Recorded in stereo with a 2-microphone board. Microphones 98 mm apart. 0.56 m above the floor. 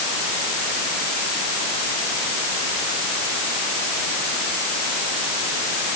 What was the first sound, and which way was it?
Only background noise.